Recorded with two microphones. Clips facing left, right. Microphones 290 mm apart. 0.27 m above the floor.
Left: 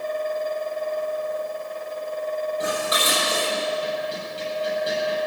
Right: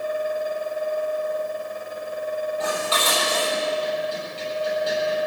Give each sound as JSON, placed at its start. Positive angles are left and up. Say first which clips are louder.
{"t": 2.6, "sound": "dishes clattering", "louder": "even", "side_deg": 20, "distance_m": 6.5}